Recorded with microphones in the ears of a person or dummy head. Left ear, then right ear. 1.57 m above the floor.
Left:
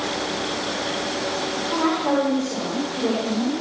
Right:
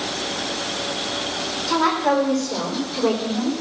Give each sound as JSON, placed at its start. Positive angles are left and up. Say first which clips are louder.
{"t": 1.7, "sound": "a woman speaking", "louder": "right 4 dB", "side_deg": -85, "distance_m": 5.5}